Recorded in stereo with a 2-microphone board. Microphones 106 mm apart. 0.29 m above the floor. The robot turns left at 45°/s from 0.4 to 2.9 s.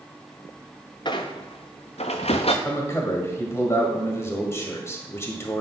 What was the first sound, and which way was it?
A squeak, 45° left (ahead or behind).